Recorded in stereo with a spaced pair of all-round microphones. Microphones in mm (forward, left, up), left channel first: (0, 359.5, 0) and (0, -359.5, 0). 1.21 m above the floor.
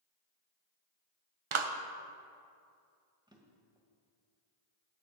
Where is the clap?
45° right (ahead or behind), 0.6 m.